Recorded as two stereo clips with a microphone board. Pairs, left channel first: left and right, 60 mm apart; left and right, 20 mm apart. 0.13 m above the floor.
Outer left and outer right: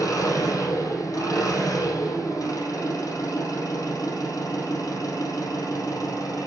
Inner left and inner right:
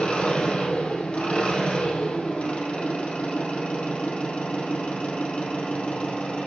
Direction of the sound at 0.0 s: 70° left (ahead or behind).